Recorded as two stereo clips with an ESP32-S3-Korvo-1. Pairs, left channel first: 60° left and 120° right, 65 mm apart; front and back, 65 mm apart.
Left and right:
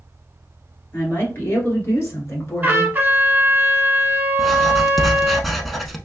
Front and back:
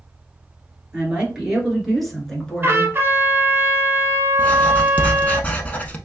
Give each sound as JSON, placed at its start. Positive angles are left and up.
{"t": 0.9, "sound": "a woman speaking", "azimuth_deg": 110, "distance_m": 2.0}
{"t": 2.6, "sound": "a trumpet", "azimuth_deg": -165, "distance_m": 1.1}
{"t": 4.4, "sound": "writing", "azimuth_deg": -25, "distance_m": 0.6}